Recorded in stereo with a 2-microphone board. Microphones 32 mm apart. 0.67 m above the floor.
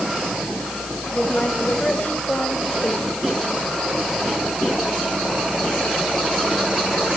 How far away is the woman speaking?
About 4.5 m.